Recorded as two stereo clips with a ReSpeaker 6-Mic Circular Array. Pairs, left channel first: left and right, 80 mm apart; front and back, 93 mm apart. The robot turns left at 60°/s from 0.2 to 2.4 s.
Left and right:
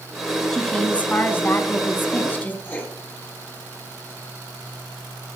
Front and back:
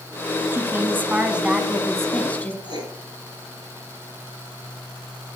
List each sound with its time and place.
0.5 s a woman speaking: 165° left, 1.3 m; by 2.5 s 55° left, 1.3 m
2.6 s writing: 155° left, 2.5 m